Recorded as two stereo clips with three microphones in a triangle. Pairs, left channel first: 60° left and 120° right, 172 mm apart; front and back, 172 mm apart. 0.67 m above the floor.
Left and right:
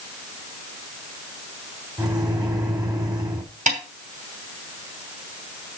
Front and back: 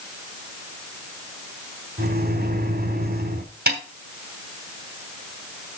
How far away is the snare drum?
About 2.5 m.